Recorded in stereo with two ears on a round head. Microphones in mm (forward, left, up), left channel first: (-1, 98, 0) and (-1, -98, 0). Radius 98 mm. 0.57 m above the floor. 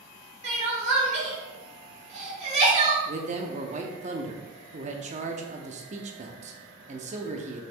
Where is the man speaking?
35° right (ahead or behind), 0.8 m.